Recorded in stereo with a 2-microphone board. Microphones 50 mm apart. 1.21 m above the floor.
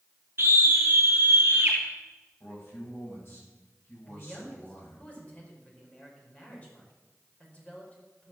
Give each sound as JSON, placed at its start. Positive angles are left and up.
{"t": 0.4, "sound": "a scream", "side_deg": -45, "distance_m": 1.4}
{"t": 2.4, "sound": "a man speaking", "side_deg": 45, "distance_m": 8.0}
{"t": 4.1, "sound": "a man speaking", "side_deg": 25, "distance_m": 5.0}